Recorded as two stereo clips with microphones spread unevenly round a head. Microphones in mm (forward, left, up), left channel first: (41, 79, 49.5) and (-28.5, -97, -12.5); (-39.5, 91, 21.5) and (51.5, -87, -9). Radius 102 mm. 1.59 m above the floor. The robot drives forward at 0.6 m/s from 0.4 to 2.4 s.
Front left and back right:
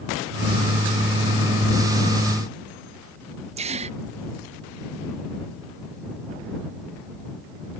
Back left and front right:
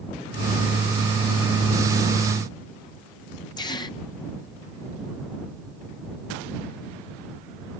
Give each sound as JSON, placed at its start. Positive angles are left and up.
{"t": 3.6, "sound": "a gasp", "azimuth_deg": -175}